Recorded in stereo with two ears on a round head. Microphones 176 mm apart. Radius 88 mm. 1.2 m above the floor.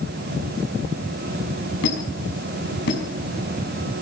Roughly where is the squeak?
Left.